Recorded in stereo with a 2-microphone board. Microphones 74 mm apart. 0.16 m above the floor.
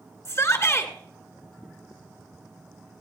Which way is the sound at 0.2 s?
40° left (ahead or behind).